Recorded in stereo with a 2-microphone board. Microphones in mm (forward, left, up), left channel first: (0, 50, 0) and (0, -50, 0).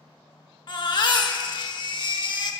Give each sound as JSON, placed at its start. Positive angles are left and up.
{"t": 0.7, "sound": "a baby crying", "side_deg": 45, "distance_m": 0.7}